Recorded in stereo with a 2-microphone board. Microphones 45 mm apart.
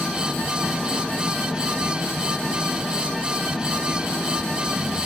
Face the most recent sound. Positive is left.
turn(degrees=10)  # may be behind; listen again after turning